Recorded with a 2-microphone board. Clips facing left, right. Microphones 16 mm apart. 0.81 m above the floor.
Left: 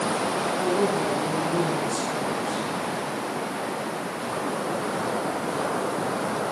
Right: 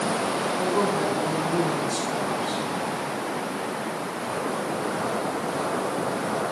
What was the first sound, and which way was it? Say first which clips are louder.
A woman speaking: even; 55° right (ahead or behind).